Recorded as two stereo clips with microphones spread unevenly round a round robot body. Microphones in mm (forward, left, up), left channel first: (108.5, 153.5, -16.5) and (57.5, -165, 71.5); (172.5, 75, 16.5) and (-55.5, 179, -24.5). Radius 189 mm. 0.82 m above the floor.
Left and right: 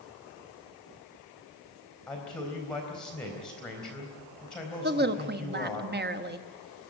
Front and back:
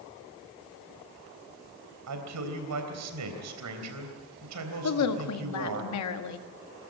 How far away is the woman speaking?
About 1.5 m.